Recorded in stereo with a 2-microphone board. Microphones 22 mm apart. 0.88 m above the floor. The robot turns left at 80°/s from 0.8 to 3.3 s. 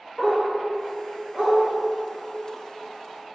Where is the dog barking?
10° right (ahead or behind), 1.3 m; by 1.6 s 70° right (ahead or behind), 1.3 m.